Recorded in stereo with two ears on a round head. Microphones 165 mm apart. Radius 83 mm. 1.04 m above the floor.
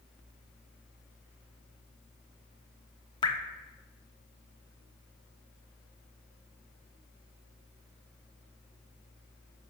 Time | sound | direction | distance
3.2 | dripping | 25° left (ahead or behind) | 0.9 m